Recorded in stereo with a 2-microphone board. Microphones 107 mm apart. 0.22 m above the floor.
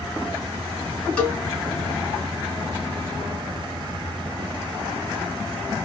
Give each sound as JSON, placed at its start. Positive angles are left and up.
{"t": 1.2, "sound": "a cowbell", "side_deg": 10, "distance_m": 2.5}